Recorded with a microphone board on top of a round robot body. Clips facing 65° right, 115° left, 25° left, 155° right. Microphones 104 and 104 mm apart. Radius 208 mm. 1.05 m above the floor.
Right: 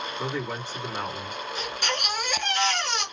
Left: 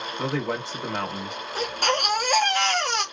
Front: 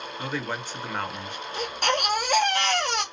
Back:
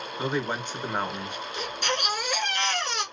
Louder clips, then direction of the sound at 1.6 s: Left 8 dB, front 5 dB; 65° left.